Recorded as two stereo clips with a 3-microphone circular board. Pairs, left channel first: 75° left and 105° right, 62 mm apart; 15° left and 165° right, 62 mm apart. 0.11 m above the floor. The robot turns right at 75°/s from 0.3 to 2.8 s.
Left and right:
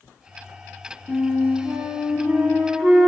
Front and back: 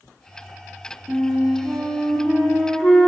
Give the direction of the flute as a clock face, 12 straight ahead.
5 o'clock.